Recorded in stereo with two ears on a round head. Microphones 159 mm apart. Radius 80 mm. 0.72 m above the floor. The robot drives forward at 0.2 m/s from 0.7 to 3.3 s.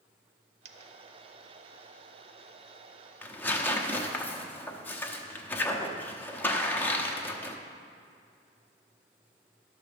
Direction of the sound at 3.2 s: 10° left (ahead or behind).